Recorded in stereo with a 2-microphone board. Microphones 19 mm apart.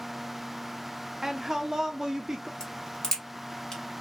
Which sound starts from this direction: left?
A crack, at 2.6 s.